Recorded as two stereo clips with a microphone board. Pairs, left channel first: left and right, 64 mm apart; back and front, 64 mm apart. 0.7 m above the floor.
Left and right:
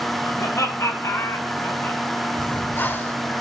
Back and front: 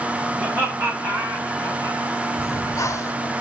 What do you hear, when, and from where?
0.4 s laughter: 45° left, 3 m; by 2.0 s 15° left, 2.5 m
2.4 s breathing: 145° left, 0.8 m